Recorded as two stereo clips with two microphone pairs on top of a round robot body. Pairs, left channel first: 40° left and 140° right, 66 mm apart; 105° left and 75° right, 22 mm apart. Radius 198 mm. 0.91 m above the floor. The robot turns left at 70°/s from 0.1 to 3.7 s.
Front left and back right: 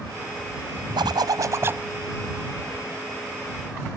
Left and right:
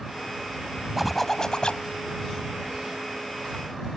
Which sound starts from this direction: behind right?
A zipper, at 1.0 s.